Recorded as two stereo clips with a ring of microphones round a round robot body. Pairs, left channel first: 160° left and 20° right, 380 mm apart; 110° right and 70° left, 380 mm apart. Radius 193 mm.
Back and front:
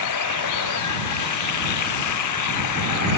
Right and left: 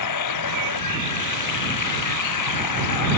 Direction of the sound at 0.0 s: 155° right.